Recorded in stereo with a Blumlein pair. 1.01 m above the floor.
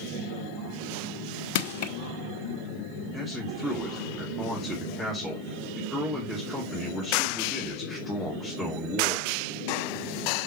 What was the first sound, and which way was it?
Crushing, 50° left.